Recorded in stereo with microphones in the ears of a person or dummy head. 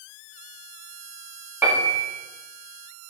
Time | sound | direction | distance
1.6 | a piano | 10° right (ahead or behind) | 1.7 m